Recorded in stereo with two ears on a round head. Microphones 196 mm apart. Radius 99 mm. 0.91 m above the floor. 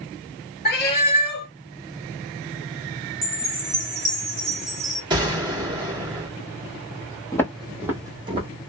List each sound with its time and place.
0.7 s a cat meowing: 45° left (ahead or behind), 0.9 m
3.2 s a chime: 30° right (ahead or behind), 1.6 m
5.1 s a gunshot: 20° right (ahead or behind), 1.3 m
7.3 s footsteps: 15° left (ahead or behind), 1.1 m; by 8.5 s 25° right (ahead or behind), 1.6 m